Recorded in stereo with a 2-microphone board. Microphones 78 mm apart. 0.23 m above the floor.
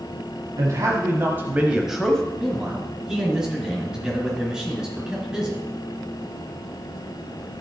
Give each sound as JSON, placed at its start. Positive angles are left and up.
{"t": 0.6, "sound": "a man speaking", "side_deg": -45, "distance_m": 1.6}
{"t": 2.4, "sound": "a man speaking", "side_deg": -10, "distance_m": 3.5}